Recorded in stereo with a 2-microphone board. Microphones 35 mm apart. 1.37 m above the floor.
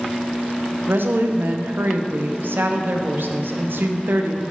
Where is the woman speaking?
80° right, 0.6 m.